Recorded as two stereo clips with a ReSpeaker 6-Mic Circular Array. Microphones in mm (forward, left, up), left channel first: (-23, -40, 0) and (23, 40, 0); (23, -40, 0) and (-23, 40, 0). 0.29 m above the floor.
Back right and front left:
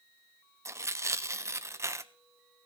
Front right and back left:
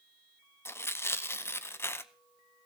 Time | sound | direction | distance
0.7 | tearing paper | straight ahead | 0.5 m